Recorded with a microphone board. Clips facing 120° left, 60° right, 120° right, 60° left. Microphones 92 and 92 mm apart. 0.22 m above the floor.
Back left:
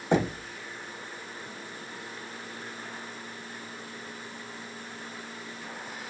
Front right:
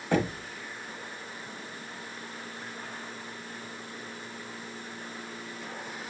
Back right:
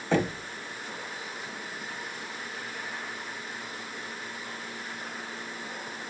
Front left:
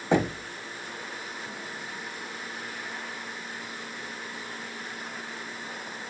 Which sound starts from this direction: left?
Knocking, at 0.1 s.